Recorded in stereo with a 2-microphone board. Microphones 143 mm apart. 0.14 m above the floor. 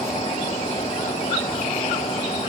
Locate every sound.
Only background noise.